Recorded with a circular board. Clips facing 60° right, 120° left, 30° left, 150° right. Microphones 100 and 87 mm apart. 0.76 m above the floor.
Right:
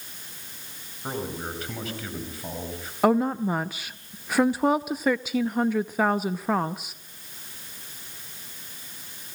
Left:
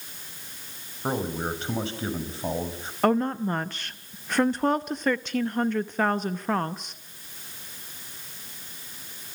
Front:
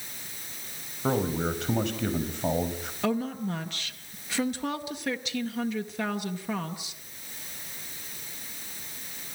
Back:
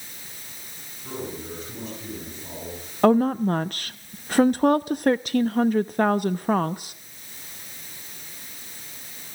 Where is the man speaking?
55° left, 5 m.